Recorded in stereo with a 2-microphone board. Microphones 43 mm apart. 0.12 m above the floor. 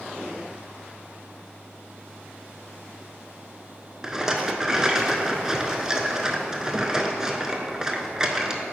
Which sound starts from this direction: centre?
A rattle, at 4.0 s.